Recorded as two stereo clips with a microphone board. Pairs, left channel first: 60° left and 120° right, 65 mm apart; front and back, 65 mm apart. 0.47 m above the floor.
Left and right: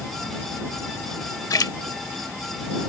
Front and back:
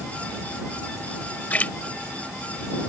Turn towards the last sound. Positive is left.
turn(degrees=65)